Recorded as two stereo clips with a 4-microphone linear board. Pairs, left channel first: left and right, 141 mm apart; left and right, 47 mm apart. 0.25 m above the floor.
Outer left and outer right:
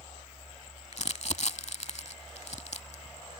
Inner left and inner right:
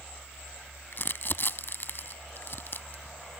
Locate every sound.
0.9 s crumpling: 50° left (ahead or behind)